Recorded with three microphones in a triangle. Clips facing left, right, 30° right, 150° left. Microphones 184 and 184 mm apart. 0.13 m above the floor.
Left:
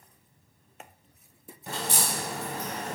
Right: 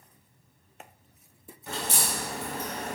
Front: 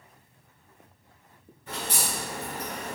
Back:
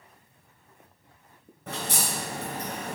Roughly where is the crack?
Behind left.